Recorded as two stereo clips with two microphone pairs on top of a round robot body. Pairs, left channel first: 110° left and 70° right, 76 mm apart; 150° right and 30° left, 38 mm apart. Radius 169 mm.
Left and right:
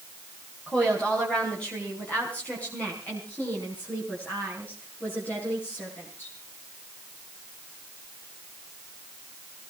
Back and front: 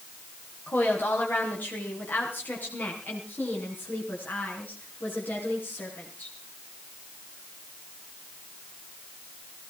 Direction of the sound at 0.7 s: 170° right.